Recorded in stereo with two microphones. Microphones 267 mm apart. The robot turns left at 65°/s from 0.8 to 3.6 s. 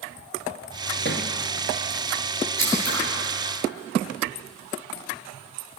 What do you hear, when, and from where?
1.1 s a thud: 45° left (ahead or behind), 1.8 m; by 1.3 s 30° left (ahead or behind), 1.8 m
2.6 s scissors: 80° left, 9 m; by 3.0 s 55° left (ahead or behind), 9 m